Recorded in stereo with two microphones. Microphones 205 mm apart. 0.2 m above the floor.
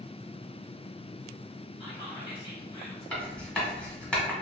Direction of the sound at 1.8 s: 25° left (ahead or behind).